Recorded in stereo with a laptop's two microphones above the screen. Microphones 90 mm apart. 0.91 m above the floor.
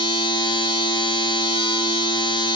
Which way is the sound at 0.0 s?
65° left (ahead or behind).